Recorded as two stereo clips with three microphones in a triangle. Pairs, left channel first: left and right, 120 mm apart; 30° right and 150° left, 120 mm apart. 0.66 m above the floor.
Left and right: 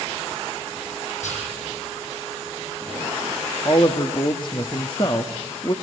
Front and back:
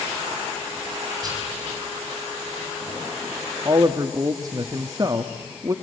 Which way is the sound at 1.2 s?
95° left.